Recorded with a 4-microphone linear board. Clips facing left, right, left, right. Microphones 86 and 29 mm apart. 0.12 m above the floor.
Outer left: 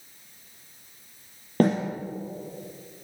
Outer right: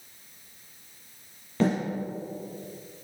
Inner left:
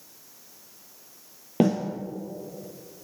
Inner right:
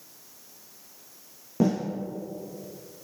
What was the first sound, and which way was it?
A snare drum, 50° left (ahead or behind).